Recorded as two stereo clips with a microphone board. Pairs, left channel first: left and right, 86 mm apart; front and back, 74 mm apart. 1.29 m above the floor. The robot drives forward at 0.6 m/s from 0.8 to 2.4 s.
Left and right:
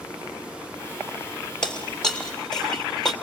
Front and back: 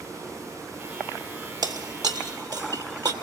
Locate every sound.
1.6 s breaking glass: 170° left, 2 m